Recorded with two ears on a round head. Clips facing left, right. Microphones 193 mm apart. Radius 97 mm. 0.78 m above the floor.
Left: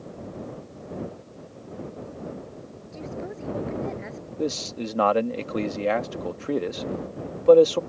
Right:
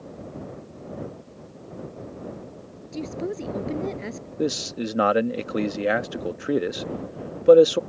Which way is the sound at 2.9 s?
45° right (ahead or behind).